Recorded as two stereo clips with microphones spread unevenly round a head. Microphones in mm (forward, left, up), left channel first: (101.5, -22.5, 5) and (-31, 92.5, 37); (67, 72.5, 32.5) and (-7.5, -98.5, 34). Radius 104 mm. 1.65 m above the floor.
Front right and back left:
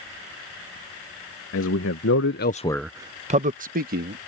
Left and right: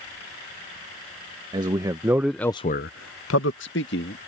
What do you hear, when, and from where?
1.5 s a man speaking: 45° right; by 4.2 s 110° left